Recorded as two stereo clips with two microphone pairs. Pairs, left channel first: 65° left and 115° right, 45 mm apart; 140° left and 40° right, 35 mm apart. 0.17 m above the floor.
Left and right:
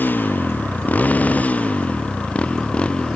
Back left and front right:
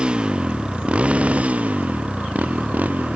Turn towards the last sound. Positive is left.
turn(degrees=0)